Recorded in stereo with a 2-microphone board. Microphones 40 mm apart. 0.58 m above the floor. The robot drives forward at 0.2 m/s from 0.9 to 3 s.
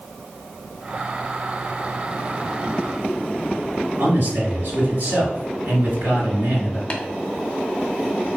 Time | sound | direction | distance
4.0 | a man speaking | 45° right (ahead or behind) | 1.8 m
6.9 | tapping | 30° left (ahead or behind) | 0.6 m